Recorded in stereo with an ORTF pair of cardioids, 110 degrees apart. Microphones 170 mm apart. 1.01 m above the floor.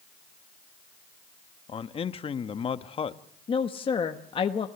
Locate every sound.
1.7 s a man speaking: 35° left, 1.1 m
3.5 s a woman speaking: 30° left, 1.2 m